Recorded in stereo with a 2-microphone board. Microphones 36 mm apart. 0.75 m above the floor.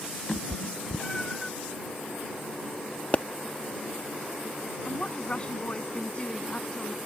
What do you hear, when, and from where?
0.3 s a cat meowing: 25° left (ahead or behind); by 1.5 s 10° left (ahead or behind)
3.1 s a pop: 40° left (ahead or behind)
4.8 s a woman speaking: 30° left (ahead or behind)